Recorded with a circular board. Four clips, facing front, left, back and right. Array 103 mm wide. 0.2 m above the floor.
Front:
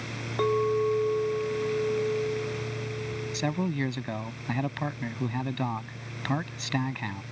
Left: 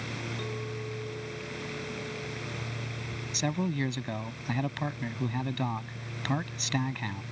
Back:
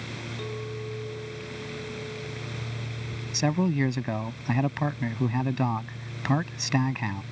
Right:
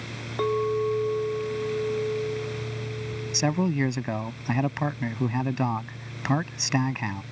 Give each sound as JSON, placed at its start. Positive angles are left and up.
{"t": 0.4, "sound": "a clink", "azimuth_deg": -45}
{"t": 3.3, "sound": "a man speaking", "azimuth_deg": -115}